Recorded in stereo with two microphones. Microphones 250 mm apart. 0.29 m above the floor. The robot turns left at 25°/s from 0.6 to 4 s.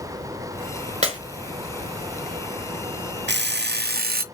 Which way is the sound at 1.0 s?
25° right (ahead or behind).